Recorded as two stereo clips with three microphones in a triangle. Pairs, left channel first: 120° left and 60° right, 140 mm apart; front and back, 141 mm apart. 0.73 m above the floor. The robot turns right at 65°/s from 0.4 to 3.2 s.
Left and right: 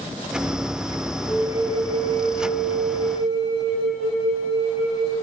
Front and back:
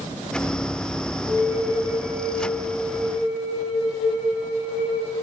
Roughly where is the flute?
Ahead.